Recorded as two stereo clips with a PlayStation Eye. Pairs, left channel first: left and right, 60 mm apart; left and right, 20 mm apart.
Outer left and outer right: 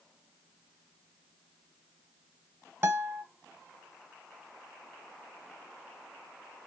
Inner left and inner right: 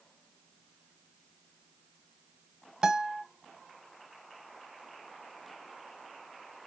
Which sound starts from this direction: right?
A guitar, at 2.8 s.